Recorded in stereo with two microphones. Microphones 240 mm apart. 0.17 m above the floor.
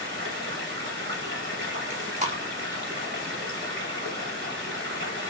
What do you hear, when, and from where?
0.0 s running water: 50° right (ahead or behind), 1.7 m
1.9 s chewing: 30° right (ahead or behind), 0.8 m